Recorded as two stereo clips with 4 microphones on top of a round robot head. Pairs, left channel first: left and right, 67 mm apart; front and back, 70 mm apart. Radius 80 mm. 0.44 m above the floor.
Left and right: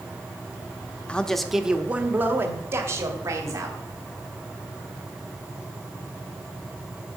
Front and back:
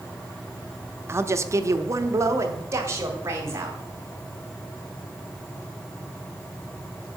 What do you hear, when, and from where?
1.1 s a man speaking: 155° left, 1.1 m; by 3.8 s 125° right, 3 m